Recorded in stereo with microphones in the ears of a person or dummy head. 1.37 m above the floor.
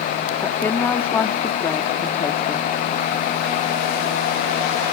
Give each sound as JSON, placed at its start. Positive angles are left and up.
{"t": 0.4, "sound": "a woman speaking", "side_deg": 10}